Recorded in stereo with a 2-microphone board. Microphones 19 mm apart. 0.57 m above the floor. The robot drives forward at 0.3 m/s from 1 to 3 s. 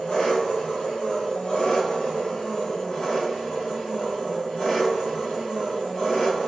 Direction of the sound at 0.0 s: 70° left (ahead or behind).